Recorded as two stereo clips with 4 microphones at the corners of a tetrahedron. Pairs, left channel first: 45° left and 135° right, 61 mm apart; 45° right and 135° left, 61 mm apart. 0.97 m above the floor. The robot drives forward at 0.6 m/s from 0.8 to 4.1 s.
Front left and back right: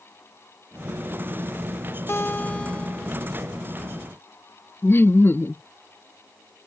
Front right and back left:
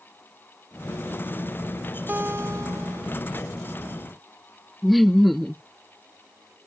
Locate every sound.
2.1 s a guitar: 80° left; by 3.2 s 130° left
4.8 s laughter: 45° left